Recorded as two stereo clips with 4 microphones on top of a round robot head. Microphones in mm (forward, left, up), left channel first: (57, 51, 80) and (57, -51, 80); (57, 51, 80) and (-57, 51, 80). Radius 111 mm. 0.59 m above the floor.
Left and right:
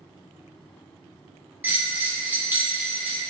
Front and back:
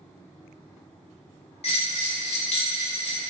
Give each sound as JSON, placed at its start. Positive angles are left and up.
{"t": 1.6, "sound": "a bell", "azimuth_deg": -20, "distance_m": 1.1}